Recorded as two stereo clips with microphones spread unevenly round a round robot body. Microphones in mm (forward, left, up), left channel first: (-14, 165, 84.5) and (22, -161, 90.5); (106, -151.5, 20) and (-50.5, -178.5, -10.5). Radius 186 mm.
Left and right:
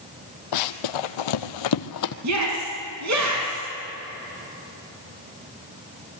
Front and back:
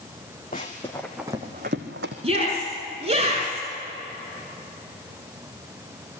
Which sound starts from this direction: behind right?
A shout, at 2.2 s.